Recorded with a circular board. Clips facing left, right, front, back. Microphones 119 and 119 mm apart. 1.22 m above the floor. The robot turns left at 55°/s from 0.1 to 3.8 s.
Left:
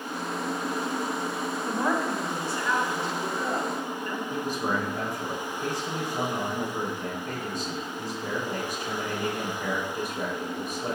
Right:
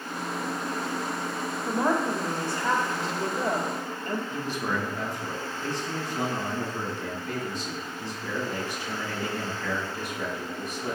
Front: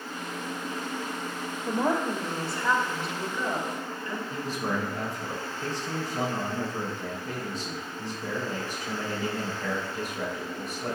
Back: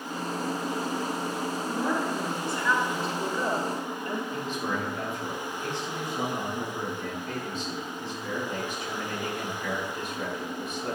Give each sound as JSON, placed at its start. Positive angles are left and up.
{"t": 1.7, "sound": "a woman speaking", "azimuth_deg": -10, "distance_m": 1.7}
{"t": 4.3, "sound": "a man speaking", "azimuth_deg": 50, "distance_m": 3.0}